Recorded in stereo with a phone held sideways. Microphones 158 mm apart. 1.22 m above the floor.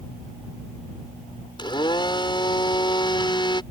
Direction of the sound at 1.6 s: 30° left (ahead or behind).